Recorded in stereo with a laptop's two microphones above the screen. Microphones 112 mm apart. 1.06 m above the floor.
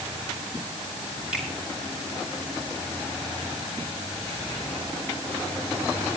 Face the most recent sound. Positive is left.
turn(degrees=-10)  # may be behind; listen again after turning